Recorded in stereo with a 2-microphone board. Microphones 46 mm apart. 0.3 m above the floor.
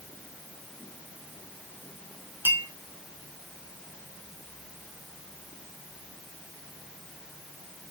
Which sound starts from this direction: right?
A clink, at 2.5 s.